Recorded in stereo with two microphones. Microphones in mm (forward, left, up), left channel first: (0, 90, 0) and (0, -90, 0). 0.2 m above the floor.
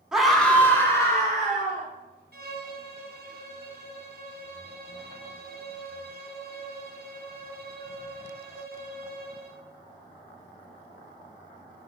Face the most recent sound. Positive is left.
turn(degrees=-65)  # may be behind; listen again after turning